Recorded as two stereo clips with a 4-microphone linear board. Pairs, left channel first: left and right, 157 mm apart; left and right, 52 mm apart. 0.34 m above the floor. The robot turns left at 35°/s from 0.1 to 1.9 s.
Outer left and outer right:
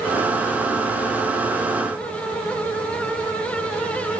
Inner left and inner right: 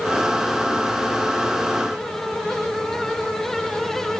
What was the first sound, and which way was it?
Only background noise.